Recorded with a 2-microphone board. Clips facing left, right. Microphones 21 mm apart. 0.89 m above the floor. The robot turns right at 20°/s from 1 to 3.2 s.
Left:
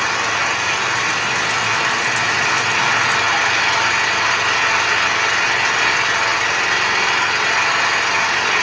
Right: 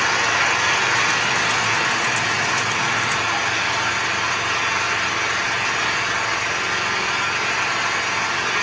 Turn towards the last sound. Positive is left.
turn(degrees=45)